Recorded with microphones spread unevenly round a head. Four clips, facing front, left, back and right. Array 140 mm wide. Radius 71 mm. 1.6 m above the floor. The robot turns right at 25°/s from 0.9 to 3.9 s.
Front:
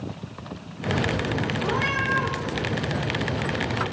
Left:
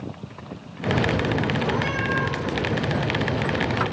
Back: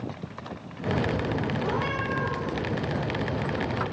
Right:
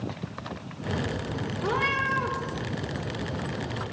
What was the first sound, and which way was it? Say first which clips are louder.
A cat meowing: left 2 dB, front 3 dB; 60° right.